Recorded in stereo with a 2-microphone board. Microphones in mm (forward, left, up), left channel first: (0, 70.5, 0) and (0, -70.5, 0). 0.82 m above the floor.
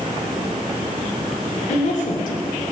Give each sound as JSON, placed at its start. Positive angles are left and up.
{"t": 1.7, "sound": "a woman speaking", "side_deg": 60, "distance_m": 3.0}